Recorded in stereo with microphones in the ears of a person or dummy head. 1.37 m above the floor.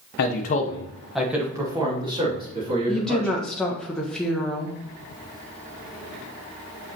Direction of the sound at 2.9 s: Centre (ahead or behind).